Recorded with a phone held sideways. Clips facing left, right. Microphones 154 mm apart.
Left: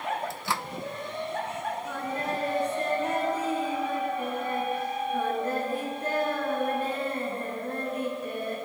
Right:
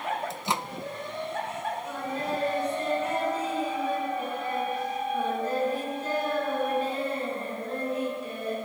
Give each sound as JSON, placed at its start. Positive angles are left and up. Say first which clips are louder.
{"t": 0.3, "sound": "a microwave", "louder": "right 2 dB", "side_deg": -20, "distance_m": 0.5}
{"t": 1.9, "sound": "singing", "louder": "even", "side_deg": 55, "distance_m": 9.5}